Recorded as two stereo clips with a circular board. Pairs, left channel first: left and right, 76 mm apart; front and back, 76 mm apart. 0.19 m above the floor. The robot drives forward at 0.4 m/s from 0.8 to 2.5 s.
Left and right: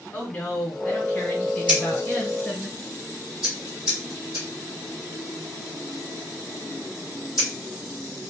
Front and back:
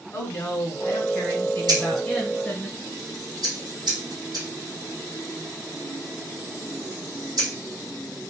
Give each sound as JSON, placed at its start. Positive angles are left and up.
{"t": 0.1, "sound": "a woman speaking", "azimuth_deg": 25, "distance_m": 1.6}
{"t": 1.7, "sound": "scissors", "azimuth_deg": -165, "distance_m": 1.5}